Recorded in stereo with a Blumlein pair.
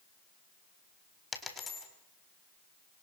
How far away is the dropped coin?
About 4.5 m.